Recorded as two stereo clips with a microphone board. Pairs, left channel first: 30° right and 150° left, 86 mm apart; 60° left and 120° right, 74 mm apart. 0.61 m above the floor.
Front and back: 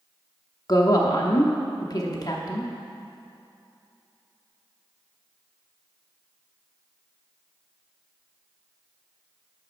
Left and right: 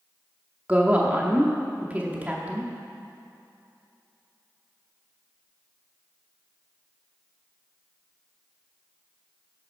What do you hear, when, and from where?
0.7 s a woman speaking: 55° right, 0.8 m